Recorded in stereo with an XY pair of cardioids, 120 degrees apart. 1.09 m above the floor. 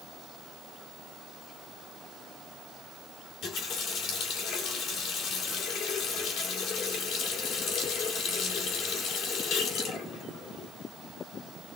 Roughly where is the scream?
No scream in this recording.